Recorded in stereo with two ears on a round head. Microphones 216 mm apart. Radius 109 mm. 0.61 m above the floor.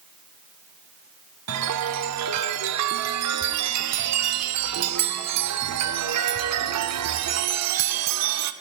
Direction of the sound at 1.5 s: 75° right (ahead or behind).